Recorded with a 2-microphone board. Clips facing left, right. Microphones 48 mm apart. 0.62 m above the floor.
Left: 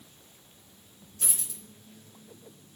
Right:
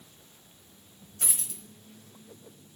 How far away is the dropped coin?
About 0.9 m.